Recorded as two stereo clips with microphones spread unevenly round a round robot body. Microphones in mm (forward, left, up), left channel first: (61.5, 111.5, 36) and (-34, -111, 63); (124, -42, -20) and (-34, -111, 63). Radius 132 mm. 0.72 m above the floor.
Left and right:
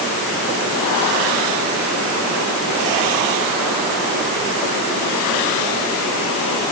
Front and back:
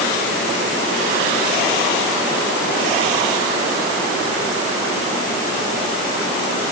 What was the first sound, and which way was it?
Only background noise.